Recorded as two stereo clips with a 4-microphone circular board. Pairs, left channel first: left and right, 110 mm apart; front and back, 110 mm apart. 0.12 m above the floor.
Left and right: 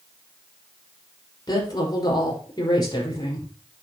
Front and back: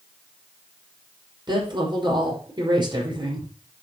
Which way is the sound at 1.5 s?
135° left.